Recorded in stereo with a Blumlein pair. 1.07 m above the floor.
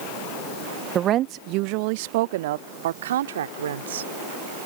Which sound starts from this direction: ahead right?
A woman speaking, at 0.9 s.